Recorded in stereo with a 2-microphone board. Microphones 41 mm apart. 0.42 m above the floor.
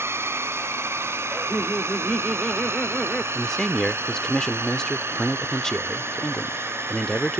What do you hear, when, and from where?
0.0 s a drone: 70° right (ahead or behind); by 7.4 s 65° right (ahead or behind)
1.3 s laughter: 15° left (ahead or behind)
3.4 s a man speaking: 10° left (ahead or behind)